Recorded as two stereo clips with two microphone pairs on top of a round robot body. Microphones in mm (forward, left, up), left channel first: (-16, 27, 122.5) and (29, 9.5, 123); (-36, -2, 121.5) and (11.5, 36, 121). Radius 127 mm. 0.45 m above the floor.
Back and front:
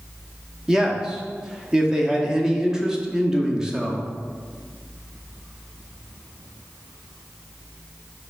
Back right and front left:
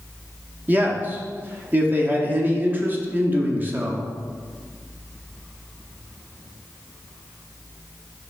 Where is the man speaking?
40° left, 0.9 m.